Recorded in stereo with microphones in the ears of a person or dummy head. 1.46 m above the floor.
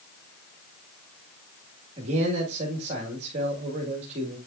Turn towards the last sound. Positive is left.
turn(degrees=-35)  # may be behind; listen again after turning